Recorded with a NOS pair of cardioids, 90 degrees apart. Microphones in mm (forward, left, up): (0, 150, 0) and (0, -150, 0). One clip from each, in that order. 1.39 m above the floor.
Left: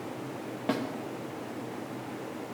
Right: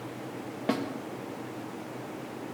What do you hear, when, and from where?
0.7 s a snare drum: 15° right, 1.9 m